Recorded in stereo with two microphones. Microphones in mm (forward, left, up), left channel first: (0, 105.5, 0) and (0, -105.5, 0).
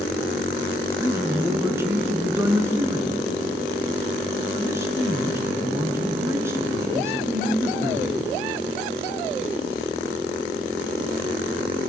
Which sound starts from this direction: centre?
A man speaking, at 1.0 s.